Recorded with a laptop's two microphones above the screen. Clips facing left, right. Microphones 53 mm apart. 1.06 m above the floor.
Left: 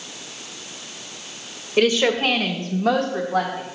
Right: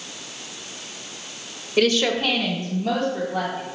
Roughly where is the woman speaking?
Centre.